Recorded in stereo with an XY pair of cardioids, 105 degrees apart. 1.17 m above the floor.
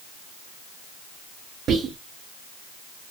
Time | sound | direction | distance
1.7 | whispering | 60° right | 0.5 m